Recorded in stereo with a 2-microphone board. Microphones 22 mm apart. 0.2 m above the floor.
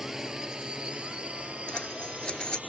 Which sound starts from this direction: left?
Scissors, at 1.7 s.